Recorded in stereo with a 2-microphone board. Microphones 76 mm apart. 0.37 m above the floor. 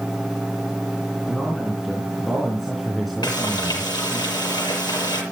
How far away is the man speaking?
About 4 m.